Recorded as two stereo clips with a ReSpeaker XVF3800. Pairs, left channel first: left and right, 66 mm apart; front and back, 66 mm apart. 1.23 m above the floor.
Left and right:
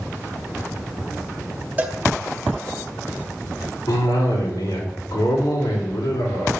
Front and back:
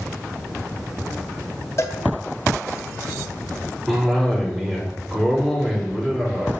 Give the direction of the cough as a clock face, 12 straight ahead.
9 o'clock.